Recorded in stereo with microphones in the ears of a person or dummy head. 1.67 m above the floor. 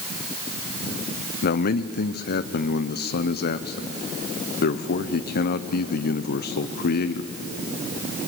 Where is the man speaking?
50° left (ahead or behind), 0.9 m.